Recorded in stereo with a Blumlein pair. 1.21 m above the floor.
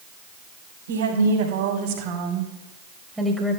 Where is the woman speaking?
65° right, 4 m; by 3.6 s 5° left, 2.5 m.